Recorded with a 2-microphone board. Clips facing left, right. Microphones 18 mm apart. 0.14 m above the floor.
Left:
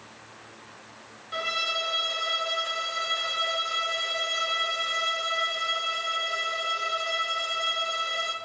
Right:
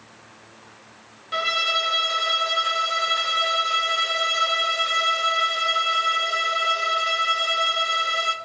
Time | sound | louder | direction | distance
1.3 | a violin | right 6 dB | 25° right (ahead or behind) | 0.5 m